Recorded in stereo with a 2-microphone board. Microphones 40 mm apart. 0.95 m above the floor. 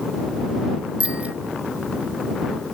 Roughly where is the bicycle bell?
Right.